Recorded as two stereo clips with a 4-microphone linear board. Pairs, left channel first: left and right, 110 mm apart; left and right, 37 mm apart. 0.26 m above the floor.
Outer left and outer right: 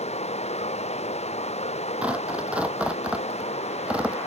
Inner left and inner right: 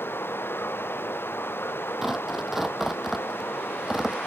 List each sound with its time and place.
0.0 s running water: 80° left
2.0 s tearing paper: 10° right (ahead or behind)